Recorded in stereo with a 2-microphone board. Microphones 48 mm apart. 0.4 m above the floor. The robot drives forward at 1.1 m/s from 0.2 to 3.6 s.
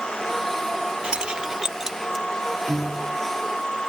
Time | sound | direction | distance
1.0 | keys jangling | 20° right (ahead or behind) | ?
2.7 | a piano | 30° right (ahead or behind) | ?